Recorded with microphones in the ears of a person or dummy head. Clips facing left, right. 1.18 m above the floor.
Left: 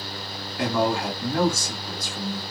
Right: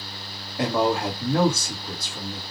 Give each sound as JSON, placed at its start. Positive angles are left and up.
{"t": 0.6, "sound": "a man speaking", "side_deg": -15, "distance_m": 1.4}